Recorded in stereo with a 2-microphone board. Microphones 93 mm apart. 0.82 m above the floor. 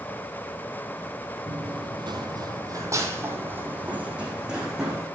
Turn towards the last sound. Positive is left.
turn(degrees=-5)  # may be behind; listen again after turning